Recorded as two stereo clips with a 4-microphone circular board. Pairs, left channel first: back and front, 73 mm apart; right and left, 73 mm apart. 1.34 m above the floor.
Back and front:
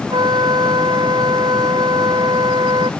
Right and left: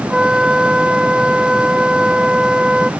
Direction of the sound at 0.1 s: 10° left.